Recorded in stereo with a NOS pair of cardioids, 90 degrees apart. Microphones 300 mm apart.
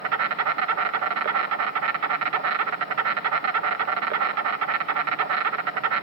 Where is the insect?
60° right, 1.5 m.